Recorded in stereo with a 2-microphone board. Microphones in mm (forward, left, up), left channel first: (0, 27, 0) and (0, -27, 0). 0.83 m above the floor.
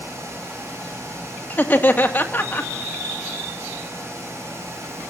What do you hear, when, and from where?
1.5 s laughter: 35° left (ahead or behind), 1.8 m